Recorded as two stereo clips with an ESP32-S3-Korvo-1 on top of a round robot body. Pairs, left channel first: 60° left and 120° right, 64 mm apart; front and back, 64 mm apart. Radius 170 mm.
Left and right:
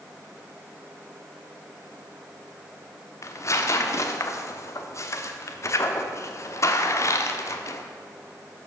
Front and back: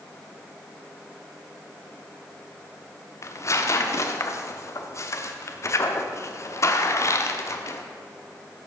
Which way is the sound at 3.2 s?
30° left.